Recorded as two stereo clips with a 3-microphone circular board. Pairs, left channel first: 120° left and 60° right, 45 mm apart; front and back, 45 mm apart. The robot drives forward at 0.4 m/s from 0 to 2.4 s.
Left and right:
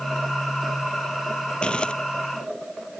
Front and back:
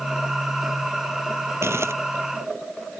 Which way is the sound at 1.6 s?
175° right.